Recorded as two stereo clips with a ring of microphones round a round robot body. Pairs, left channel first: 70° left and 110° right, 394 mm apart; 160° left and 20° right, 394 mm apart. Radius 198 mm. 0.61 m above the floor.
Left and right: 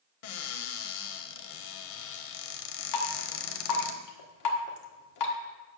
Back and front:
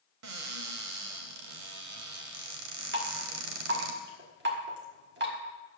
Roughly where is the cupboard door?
Ahead left.